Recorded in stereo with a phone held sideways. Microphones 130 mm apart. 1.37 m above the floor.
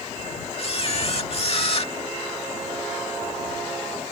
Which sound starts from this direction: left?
A camera shutter, at 0.6 s.